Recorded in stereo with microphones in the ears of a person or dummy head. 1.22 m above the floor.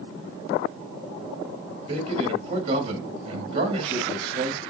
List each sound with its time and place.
1.9 s a man speaking: 35° right (ahead or behind), 1.8 m